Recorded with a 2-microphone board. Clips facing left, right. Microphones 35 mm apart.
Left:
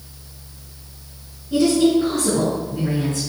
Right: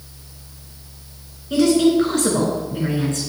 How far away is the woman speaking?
About 5 m.